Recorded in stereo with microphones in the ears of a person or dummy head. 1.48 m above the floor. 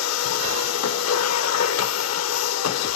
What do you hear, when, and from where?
0.0 s a machine running: 75° left (ahead or behind), 0.8 m